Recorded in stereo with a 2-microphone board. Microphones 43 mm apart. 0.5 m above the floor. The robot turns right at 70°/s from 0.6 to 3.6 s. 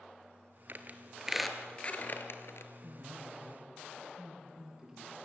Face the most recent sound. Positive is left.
turn(degrees=-20)